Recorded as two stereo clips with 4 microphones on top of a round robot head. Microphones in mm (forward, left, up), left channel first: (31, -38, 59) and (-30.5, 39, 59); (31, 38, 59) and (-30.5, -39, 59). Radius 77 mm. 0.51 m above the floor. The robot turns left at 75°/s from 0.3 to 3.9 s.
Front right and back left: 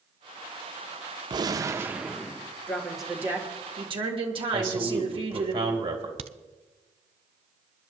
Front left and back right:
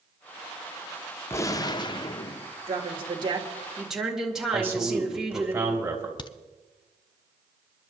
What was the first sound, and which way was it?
A gunshot, 105° left.